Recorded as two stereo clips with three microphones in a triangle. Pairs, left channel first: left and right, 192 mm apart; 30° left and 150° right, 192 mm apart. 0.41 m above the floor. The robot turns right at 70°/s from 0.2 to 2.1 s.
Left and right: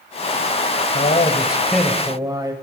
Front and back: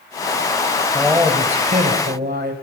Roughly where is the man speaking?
Behind left.